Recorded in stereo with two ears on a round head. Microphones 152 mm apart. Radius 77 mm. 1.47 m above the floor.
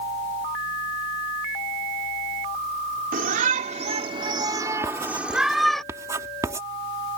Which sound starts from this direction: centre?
Writing, at 4.8 s.